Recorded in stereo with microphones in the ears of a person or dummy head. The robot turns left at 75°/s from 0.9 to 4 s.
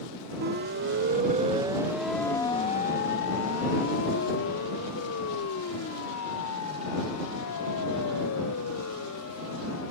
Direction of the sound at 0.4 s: 50° right (ahead or behind).